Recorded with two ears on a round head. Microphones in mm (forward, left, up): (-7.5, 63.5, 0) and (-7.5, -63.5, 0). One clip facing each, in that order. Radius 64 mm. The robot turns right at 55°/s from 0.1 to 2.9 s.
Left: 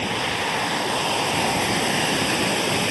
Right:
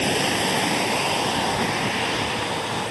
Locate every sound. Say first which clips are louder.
0.0 s running water: right 3 dB; 60° right; by 2.9 s 95° left